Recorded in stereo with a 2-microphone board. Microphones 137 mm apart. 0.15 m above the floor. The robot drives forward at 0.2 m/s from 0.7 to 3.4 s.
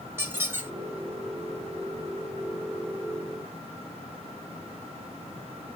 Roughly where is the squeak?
Centre.